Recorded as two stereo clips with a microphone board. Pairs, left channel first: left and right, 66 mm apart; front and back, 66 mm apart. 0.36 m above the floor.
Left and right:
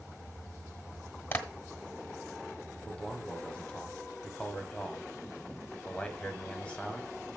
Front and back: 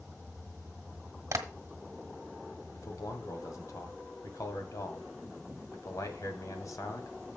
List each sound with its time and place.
1.3 s tapping: 145° left, 1.2 m
2.7 s a man speaking: 20° left, 1.9 m